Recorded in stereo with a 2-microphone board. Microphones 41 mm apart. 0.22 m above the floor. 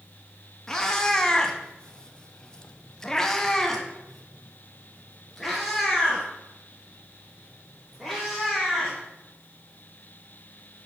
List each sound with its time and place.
0.7 s a cat meowing: 10° left (ahead or behind), 1.1 m; by 9.0 s centre (ahead or behind), 4 m